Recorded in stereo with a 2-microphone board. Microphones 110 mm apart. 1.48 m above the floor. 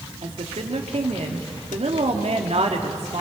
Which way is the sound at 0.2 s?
75° right (ahead or behind).